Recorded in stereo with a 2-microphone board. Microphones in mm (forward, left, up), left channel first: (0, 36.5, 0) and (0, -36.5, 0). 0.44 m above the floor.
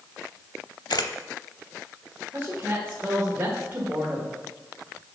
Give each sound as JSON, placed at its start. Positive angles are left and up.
{"t": 0.9, "sound": "a camera shutter", "side_deg": 70, "distance_m": 0.6}
{"t": 2.3, "sound": "a woman speaking", "side_deg": -25, "distance_m": 1.6}